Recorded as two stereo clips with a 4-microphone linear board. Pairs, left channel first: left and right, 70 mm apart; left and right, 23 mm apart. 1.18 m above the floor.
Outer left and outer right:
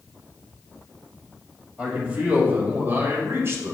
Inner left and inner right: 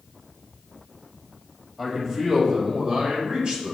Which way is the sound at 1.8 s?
20° right (ahead or behind).